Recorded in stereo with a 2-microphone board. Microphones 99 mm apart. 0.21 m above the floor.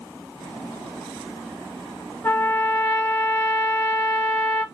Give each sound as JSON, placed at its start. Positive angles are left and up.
{"t": 2.2, "sound": "a trumpet", "side_deg": 25, "distance_m": 1.7}